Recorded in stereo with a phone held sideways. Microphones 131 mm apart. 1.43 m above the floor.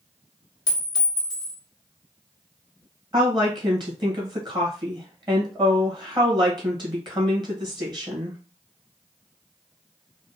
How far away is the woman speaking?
About 1.6 m.